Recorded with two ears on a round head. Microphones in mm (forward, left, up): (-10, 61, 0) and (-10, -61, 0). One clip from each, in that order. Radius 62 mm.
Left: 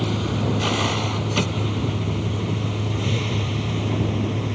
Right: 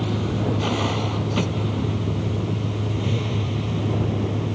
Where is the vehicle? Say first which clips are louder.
Left 1 dB; 35° left (ahead or behind); by 4.5 s 30° left (ahead or behind).